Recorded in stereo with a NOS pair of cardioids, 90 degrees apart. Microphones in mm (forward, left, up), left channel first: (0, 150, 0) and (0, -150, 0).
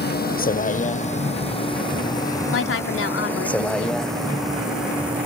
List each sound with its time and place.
0.0 s a vehicle: 30° left; by 5.2 s 5° right
2.5 s a woman speaking: 45° left